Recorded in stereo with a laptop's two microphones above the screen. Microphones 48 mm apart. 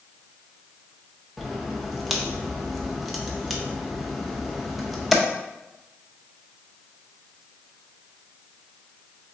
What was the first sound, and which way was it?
A crack, 5° right (ahead or behind).